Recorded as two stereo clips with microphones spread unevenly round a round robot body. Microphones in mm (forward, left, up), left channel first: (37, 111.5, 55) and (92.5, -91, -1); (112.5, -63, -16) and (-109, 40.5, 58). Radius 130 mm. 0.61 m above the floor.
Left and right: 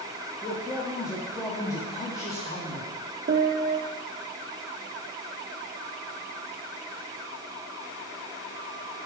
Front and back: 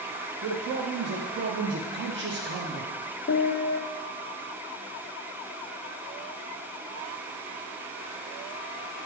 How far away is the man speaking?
About 0.6 m.